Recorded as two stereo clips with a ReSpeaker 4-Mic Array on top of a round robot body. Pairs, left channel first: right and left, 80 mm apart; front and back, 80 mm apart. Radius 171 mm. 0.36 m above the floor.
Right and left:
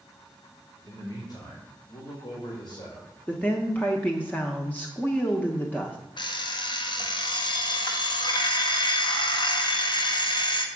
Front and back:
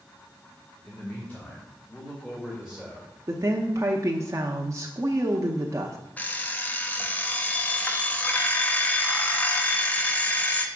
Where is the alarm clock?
70° right, 1.1 m.